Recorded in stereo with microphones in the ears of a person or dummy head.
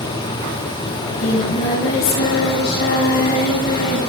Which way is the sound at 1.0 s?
55° left (ahead or behind).